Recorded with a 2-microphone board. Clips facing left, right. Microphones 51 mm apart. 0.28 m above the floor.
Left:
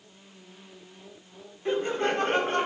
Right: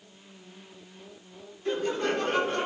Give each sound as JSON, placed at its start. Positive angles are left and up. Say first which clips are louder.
{"t": 1.6, "sound": "laughter", "louder": "left 1 dB", "side_deg": 20, "distance_m": 1.1}